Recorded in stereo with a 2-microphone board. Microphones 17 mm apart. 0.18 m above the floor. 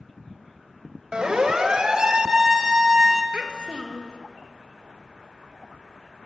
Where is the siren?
60° right (ahead or behind), 3.5 m; by 3.2 s 20° right (ahead or behind), 1.7 m.